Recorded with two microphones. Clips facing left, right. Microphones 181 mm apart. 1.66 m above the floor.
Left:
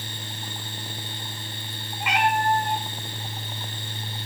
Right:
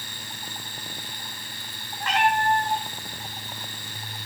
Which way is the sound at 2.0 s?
10° left (ahead or behind).